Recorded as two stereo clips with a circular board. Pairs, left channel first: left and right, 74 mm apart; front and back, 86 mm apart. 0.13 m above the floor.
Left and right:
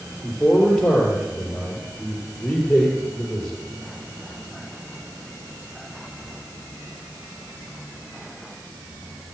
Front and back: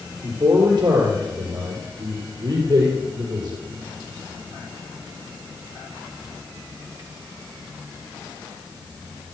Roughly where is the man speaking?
Behind.